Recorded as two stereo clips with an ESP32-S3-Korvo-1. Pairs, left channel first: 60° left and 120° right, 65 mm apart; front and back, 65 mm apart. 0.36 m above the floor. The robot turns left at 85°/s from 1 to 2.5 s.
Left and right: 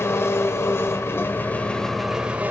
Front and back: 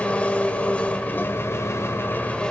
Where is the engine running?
55° left, 1.1 m; by 2.5 s 70° right, 1.1 m.